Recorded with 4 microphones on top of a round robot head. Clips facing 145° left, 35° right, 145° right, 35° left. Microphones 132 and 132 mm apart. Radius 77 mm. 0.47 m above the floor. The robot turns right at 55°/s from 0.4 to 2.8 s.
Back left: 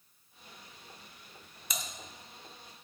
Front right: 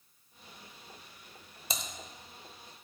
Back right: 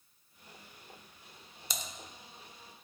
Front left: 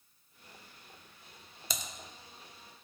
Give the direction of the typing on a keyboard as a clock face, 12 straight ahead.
11 o'clock.